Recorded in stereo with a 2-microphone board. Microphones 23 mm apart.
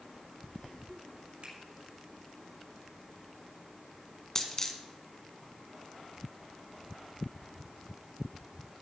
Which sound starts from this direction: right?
A finger snap, at 1.4 s.